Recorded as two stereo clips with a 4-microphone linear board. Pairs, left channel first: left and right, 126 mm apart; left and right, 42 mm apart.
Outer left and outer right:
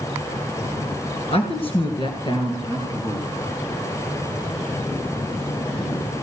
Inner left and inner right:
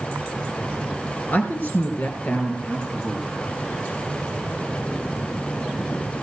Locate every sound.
1.3 s a woman speaking: 50° left (ahead or behind), 2 m; by 3.3 s 25° left (ahead or behind), 3 m